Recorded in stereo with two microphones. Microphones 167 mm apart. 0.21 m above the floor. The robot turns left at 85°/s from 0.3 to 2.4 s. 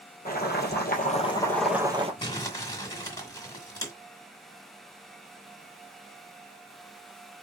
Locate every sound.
0.2 s boiling: 115° left, 1.6 m; by 2.1 s 40° right, 1.6 m
2.2 s crumpling: 25° left (ahead or behind), 1.5 m; by 3.9 s 20° left (ahead or behind), 1.5 m